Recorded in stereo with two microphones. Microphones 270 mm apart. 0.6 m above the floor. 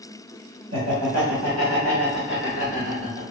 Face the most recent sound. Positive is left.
turn(degrees=-20)  # may be behind; listen again after turning